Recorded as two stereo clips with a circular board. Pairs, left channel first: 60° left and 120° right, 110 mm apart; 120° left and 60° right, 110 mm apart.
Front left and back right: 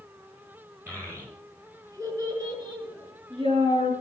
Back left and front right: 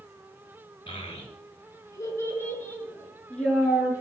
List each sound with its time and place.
0.9 s a child speaking: 170° left, 4.5 m; by 3.9 s 155° right, 5 m